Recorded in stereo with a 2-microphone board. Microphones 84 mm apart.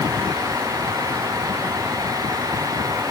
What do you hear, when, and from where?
Only background noise.